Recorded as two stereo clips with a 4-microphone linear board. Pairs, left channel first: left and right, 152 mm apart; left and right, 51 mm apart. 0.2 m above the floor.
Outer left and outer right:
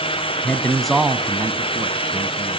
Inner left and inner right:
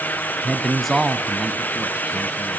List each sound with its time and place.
0.4 s a man speaking: 10° left (ahead or behind), 1.5 m; by 2.6 s 40° right (ahead or behind), 1.8 m